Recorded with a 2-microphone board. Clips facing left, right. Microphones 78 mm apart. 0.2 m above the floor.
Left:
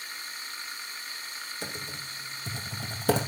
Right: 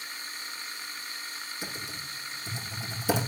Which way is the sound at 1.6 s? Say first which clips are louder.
Left 1 dB; 55° left (ahead or behind).